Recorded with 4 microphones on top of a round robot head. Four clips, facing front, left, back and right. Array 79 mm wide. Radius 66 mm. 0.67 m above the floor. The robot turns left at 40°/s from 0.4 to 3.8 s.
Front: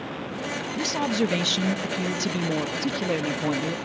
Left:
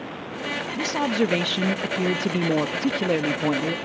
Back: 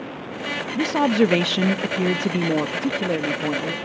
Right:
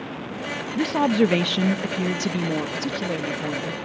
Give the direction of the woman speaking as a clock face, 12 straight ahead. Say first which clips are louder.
Right 4 dB, back 7 dB; 5 o'clock.